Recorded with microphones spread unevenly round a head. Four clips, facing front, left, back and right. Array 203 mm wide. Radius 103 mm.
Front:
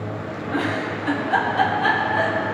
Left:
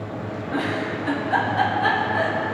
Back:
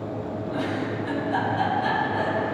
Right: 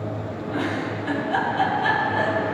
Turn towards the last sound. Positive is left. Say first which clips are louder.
# left 1 dB, front 4 dB
turn(degrees=40)